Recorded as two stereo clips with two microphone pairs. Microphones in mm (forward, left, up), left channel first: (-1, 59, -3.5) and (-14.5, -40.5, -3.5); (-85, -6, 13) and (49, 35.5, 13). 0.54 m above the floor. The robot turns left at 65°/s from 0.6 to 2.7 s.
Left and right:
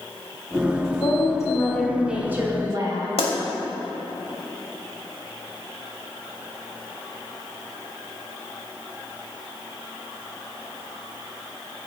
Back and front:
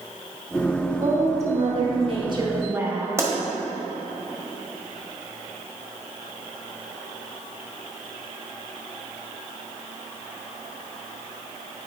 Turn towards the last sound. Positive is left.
turn(degrees=85)